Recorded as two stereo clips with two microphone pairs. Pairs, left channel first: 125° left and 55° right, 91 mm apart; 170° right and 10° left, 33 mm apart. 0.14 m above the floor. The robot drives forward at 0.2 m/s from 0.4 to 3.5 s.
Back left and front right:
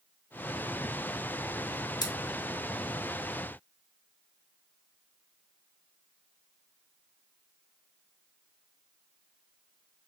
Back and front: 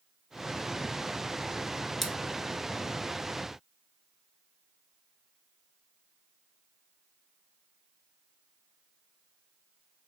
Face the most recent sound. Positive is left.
turn(degrees=130)